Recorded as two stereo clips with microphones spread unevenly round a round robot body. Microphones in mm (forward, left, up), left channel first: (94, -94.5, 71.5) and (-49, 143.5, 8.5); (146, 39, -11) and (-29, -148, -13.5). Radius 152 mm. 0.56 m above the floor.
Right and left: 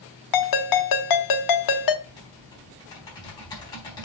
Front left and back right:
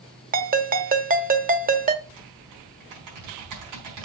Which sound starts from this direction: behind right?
Typing on a keyboard, at 2.0 s.